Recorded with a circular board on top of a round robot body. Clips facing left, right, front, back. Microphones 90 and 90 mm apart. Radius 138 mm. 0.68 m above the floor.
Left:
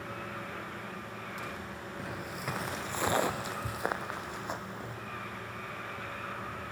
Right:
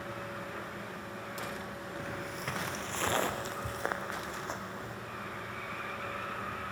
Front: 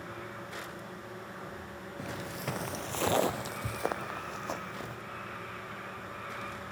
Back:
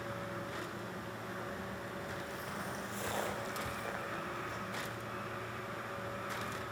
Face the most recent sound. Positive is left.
turn(degrees=15)